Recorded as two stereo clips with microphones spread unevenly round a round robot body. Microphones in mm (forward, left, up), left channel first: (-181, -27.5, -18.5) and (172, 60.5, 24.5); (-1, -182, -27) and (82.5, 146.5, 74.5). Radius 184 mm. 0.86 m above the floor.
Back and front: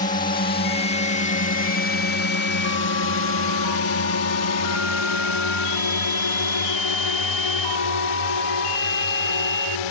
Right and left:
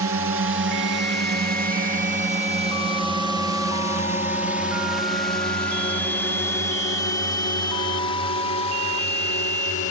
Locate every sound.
0.0 s a drone: 130° left; by 9.9 s 165° right